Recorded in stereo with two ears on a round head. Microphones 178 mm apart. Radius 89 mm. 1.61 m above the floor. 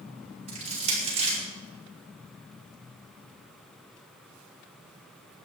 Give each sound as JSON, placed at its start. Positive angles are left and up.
{"t": 0.5, "sound": "crushing", "side_deg": -30, "distance_m": 4.5}